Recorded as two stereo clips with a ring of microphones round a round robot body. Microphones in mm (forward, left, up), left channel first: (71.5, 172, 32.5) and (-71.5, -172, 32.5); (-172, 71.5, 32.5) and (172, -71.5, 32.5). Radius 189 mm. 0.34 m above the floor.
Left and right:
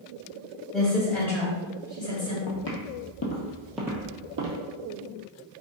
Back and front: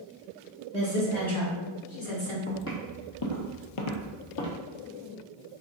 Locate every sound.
0.7 s a woman speaking: 155° left, 1.7 m; by 2.4 s 145° left, 2.5 m
2.5 s footsteps: 95° left, 1.1 m; by 4.6 s 165° right, 1.0 m